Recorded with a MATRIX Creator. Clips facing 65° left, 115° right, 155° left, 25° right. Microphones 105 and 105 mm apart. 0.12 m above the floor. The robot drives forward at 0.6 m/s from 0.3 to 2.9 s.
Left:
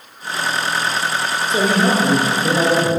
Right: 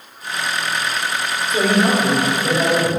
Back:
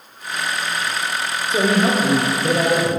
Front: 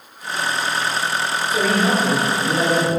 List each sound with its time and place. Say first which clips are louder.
1.5 s a man speaking: even, back 2 dB; 105° left, 1.6 m; by 3.0 s 140° left, 2.0 m